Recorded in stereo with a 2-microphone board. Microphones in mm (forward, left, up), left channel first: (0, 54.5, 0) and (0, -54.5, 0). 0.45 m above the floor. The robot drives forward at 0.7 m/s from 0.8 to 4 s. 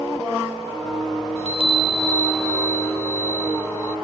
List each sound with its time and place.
1.4 s a chime: 65° right (ahead or behind); by 4.0 s 15° right (ahead or behind)